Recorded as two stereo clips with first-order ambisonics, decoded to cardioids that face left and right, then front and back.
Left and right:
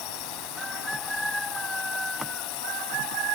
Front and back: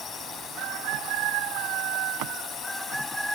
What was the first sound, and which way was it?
A drone, 65° left.